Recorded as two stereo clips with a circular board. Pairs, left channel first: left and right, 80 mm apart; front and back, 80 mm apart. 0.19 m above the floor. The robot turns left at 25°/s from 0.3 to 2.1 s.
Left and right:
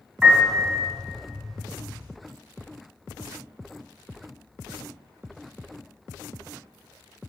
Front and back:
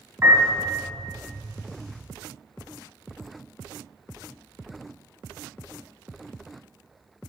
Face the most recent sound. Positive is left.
turn(degrees=155)